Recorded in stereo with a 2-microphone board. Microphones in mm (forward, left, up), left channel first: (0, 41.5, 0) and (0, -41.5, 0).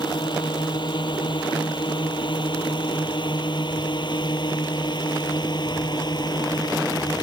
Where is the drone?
65° left (ahead or behind); by 7.2 s 55° left (ahead or behind).